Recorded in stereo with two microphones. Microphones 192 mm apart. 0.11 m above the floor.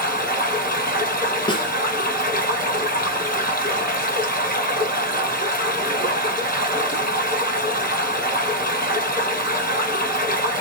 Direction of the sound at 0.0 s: 50° left (ahead or behind).